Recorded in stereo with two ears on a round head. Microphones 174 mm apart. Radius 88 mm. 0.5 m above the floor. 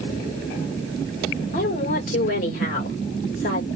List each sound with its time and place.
1.5 s a woman speaking: 45° left (ahead or behind), 1.9 m